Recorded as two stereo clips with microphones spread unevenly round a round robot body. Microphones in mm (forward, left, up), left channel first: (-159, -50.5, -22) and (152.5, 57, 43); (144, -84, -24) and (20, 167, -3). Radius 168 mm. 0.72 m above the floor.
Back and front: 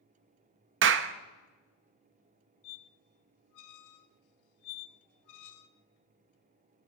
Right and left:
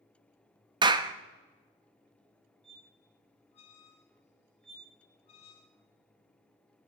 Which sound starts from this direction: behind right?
A squeak, at 2.6 s.